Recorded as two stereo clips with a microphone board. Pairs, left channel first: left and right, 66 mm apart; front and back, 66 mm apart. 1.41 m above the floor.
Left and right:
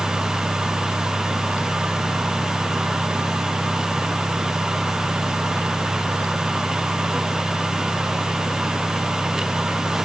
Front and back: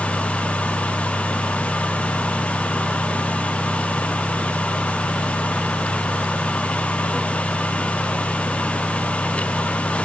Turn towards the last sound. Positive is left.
No sound to turn to.